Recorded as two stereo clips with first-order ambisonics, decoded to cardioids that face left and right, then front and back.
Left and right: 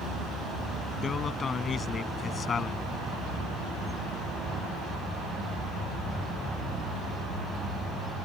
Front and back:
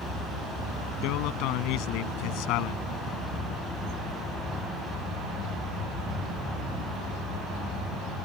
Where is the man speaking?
25° left.